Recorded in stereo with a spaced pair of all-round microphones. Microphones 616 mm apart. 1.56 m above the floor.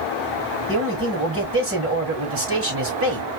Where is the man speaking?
20° right (ahead or behind), 4.5 m.